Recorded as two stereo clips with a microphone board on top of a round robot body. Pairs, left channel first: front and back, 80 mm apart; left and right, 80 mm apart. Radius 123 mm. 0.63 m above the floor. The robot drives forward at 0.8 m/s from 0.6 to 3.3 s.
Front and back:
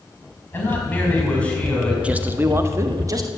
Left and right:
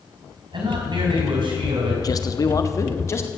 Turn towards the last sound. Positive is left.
turn(degrees=145)